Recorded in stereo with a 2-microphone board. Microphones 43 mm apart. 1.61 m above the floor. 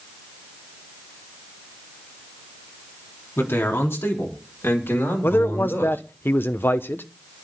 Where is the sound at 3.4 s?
75° left (ahead or behind), 3.5 m; by 6.0 s 70° left (ahead or behind), 6.5 m.